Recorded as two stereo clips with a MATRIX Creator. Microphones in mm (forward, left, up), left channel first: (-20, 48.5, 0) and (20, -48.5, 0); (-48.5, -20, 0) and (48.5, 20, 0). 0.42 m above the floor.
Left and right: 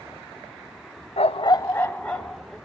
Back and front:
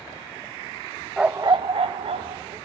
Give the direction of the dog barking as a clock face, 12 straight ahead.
8 o'clock.